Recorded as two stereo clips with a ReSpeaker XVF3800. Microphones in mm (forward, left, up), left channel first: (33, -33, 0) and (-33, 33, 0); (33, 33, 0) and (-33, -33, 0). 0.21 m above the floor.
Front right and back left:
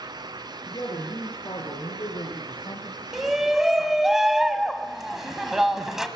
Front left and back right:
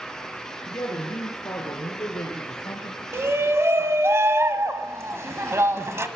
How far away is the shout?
About 1.1 m.